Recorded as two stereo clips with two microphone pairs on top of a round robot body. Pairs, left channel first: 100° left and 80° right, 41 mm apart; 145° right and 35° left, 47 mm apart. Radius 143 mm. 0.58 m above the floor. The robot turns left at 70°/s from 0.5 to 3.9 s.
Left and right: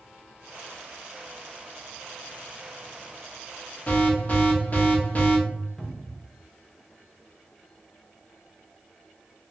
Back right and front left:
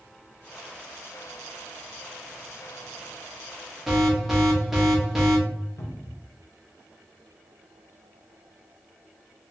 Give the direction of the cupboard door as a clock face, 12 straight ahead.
6 o'clock.